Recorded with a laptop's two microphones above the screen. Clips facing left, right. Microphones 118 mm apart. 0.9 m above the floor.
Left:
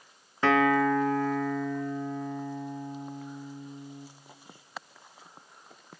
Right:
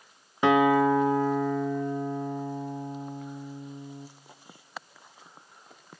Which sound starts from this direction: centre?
A guitar, at 0.4 s.